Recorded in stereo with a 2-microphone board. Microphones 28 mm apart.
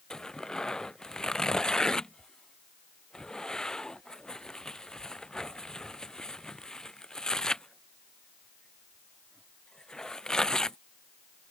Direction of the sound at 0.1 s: 30° left (ahead or behind).